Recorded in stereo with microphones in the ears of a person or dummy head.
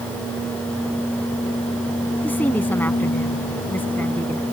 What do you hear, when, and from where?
2.2 s a woman speaking: 5° left (ahead or behind)